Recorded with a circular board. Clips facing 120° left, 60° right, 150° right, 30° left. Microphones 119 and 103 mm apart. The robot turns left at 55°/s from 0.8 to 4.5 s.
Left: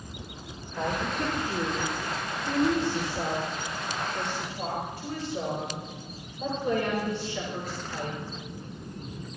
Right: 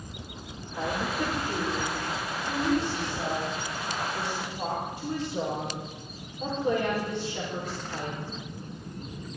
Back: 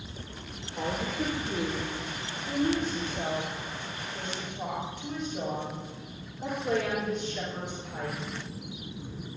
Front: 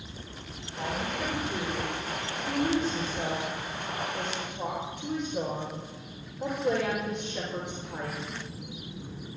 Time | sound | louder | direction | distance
0.8 | a woman speaking | even, back 1 dB | 150° right | 4 m